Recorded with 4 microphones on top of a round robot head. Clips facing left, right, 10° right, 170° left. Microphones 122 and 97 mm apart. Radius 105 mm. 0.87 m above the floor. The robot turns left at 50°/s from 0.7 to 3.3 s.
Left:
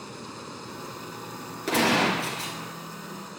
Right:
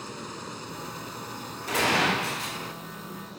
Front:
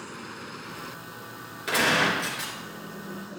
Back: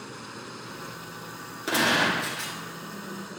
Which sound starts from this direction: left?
A gunshot, at 1.7 s.